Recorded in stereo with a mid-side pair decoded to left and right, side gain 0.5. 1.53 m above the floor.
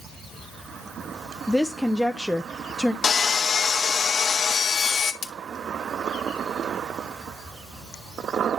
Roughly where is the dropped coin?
No dropped coin in this recording.